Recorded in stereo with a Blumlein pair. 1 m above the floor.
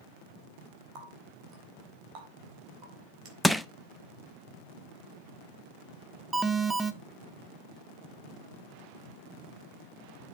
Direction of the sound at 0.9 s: 40° right.